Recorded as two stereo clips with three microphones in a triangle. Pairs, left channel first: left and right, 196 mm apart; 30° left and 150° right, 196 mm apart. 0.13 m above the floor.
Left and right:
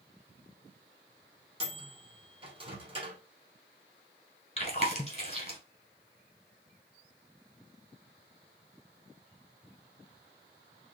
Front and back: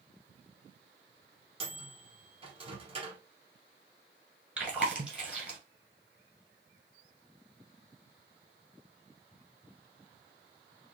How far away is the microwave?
About 1.2 m.